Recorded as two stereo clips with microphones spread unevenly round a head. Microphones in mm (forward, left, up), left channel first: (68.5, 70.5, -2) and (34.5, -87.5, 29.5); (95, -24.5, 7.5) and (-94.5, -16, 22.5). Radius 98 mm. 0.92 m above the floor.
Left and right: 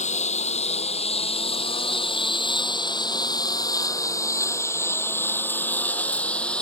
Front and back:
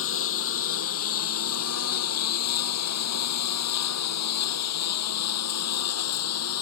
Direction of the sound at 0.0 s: 30° left.